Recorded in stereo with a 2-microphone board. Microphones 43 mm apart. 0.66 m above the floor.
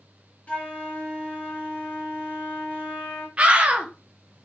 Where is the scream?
30° right (ahead or behind), 0.8 m.